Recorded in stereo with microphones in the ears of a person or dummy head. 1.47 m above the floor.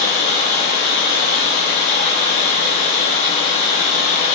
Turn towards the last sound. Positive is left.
turn(degrees=55)  # may be behind; listen again after turning